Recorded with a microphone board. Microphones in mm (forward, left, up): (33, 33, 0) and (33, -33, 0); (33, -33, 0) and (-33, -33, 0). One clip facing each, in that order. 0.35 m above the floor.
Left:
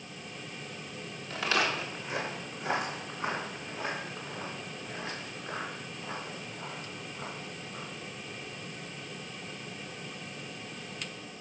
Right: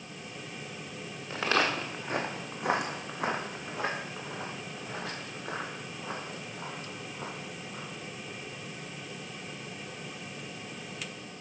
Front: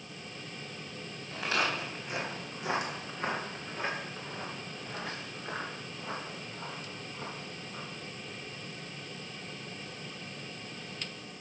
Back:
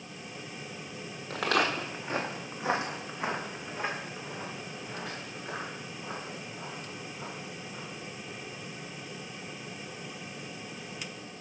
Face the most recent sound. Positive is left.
turn(degrees=-75)